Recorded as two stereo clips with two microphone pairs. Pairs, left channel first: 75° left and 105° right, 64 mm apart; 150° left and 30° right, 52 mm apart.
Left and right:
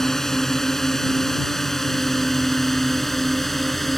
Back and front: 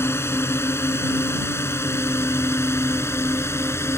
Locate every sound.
0.0 s a drone: 155° left; by 4.0 s 160° left